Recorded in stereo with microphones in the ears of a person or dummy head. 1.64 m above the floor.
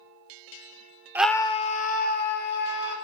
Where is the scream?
10° right (ahead or behind), 0.5 m; by 3.0 s 60° left (ahead or behind), 2.5 m.